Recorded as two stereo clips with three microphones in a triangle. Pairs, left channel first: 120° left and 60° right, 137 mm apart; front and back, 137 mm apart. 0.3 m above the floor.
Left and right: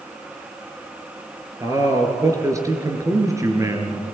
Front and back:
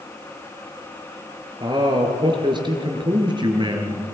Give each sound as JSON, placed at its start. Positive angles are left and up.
{"t": 1.6, "sound": "a man speaking", "azimuth_deg": -125, "distance_m": 4.0}